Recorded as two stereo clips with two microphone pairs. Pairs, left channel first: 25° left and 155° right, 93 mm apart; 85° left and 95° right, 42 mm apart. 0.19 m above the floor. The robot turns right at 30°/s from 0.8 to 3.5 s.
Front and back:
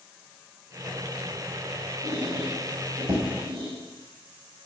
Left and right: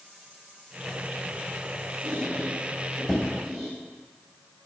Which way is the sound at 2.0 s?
150° left.